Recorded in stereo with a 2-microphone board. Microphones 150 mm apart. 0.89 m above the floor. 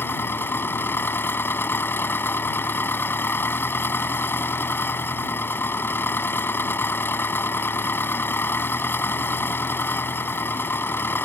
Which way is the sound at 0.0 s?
15° left (ahead or behind).